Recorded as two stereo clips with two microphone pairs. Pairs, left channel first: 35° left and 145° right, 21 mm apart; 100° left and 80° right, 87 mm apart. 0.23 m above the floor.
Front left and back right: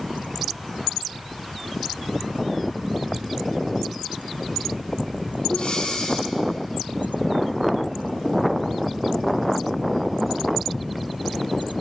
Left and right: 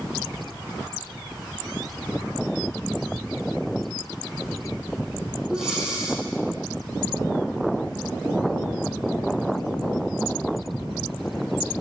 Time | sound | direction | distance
5.5 | breathing | straight ahead | 6 m